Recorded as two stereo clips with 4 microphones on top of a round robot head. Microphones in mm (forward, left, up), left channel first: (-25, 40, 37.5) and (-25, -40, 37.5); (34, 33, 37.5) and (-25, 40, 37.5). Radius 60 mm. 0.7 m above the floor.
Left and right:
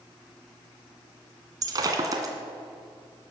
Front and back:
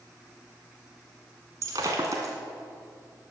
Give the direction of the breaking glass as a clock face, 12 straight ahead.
4 o'clock.